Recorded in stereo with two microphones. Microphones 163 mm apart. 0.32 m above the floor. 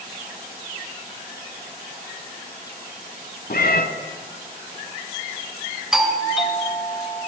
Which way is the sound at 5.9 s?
5° right (ahead or behind).